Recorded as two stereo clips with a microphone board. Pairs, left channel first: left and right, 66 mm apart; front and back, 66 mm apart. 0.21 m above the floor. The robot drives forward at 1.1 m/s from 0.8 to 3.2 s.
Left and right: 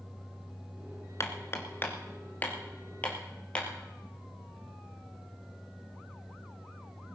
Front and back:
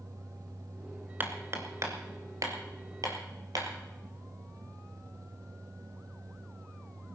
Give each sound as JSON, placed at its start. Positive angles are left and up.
{"t": 1.2, "sound": "hammering", "azimuth_deg": 125, "distance_m": 1.7}